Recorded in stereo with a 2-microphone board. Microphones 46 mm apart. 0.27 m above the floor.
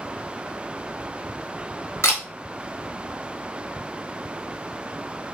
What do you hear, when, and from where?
2.0 s a camera shutter: 70° left (ahead or behind), 1.0 m